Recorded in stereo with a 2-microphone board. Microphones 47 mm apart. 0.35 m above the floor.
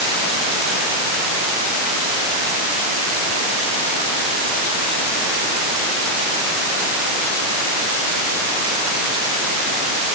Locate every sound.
Only background noise.